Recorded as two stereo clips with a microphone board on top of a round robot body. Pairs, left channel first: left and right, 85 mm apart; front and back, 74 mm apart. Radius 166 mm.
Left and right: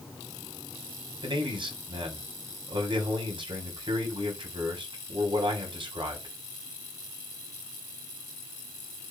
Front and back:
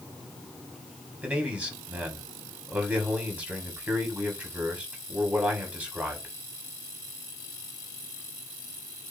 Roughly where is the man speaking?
Right.